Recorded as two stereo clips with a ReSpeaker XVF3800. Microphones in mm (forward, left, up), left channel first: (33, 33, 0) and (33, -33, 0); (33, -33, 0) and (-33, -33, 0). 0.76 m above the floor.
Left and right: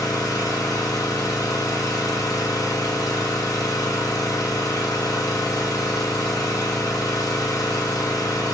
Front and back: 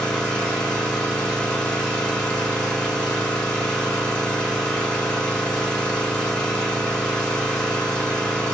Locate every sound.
0.0 s an engine running: 80° left, 1.5 m